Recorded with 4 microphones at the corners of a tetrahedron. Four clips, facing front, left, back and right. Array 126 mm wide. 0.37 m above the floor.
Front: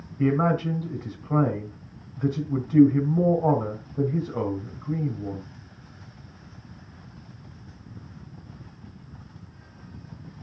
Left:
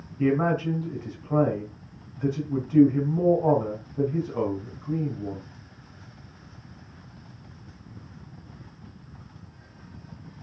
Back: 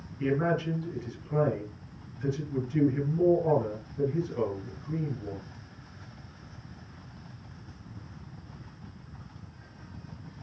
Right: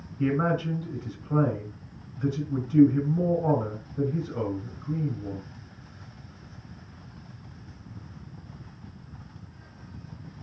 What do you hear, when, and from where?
0.2 s a man speaking: 20° left, 3.5 m